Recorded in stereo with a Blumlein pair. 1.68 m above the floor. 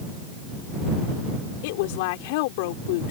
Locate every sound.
1.6 s a woman speaking: 50° left